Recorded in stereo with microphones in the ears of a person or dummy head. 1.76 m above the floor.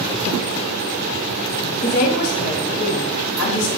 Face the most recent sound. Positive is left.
turn(degrees=75)  # may be behind; listen again after turning